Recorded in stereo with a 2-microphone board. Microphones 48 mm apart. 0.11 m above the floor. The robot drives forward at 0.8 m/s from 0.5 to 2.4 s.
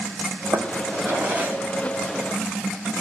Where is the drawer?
55° right (ahead or behind), 1.2 m; by 3.0 s 25° right (ahead or behind), 2.5 m.